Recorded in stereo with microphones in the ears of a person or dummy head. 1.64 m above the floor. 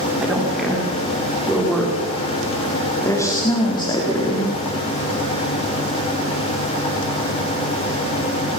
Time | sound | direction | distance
0.2 | a woman speaking | 5° right (ahead or behind) | 5 m